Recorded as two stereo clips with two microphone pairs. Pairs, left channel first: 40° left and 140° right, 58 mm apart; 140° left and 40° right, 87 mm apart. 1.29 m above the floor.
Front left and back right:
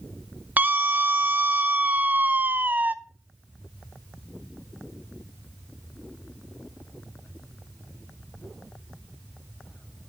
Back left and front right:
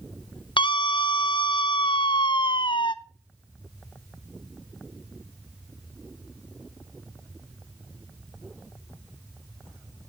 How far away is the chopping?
No chopping in this recording.